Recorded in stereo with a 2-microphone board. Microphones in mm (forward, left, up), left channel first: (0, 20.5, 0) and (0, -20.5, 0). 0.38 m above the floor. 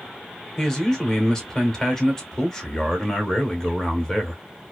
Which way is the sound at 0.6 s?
10° left (ahead or behind).